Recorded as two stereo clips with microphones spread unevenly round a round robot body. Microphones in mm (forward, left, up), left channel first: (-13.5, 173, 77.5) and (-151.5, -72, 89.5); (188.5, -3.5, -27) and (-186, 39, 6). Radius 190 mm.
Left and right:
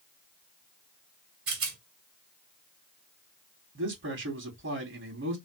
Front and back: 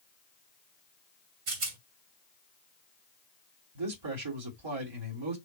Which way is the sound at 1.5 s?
160° right.